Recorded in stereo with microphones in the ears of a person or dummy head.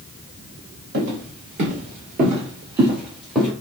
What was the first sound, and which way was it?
Footsteps, 50° right (ahead or behind).